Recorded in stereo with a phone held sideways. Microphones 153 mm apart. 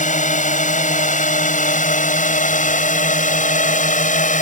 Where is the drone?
55° left (ahead or behind); by 4.4 s 60° left (ahead or behind).